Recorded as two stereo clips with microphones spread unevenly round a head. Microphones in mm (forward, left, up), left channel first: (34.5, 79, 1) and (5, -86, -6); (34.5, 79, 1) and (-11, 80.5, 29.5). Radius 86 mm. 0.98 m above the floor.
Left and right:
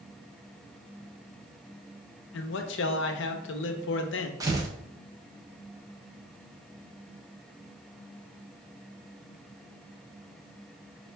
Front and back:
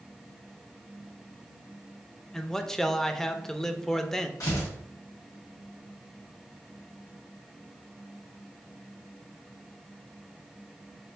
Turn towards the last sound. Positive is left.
turn(degrees=-30)